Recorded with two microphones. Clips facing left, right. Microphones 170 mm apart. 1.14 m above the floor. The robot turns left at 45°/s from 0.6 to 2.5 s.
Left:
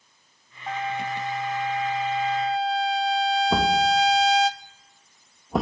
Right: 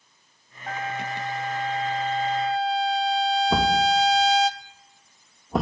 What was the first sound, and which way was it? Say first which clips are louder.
A trumpet: left 2 dB; 25° left (ahead or behind).